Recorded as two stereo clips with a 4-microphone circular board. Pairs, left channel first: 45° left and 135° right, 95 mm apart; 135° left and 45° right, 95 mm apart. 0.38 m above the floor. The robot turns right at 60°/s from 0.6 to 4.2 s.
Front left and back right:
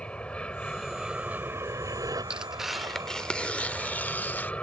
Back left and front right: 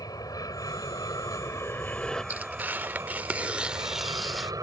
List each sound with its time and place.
0.0 s an aircraft: 120° left; by 4.6 s 25° right
2.3 s tearing paper: 70° right; by 4.5 s 40° left